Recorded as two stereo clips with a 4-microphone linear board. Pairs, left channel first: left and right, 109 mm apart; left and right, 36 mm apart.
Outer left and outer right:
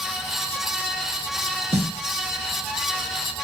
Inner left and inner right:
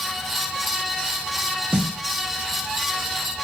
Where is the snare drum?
70° right (ahead or behind), 0.9 m.